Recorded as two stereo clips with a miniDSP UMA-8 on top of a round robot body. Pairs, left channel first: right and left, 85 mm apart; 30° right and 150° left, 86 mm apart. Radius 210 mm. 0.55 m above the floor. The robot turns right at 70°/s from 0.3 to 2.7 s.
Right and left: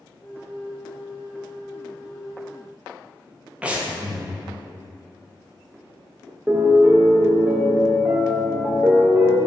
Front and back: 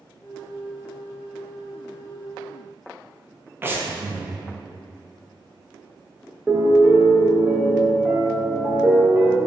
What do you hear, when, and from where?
3.6 s breathing: 145° left, 0.7 m
6.5 s a piano: 110° left, 0.9 m